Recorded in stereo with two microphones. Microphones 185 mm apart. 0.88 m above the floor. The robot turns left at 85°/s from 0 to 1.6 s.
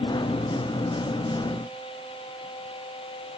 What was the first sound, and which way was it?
Only background noise.